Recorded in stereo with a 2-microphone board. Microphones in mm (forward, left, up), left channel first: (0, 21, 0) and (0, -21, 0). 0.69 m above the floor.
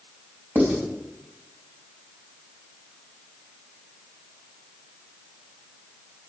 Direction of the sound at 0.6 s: 45° right (ahead or behind).